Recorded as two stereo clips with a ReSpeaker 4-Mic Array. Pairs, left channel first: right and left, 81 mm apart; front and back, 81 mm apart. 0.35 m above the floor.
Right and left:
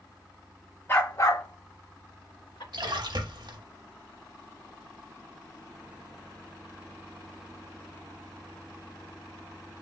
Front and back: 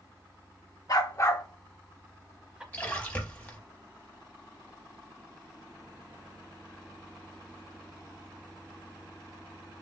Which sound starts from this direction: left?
A splash, at 2.7 s.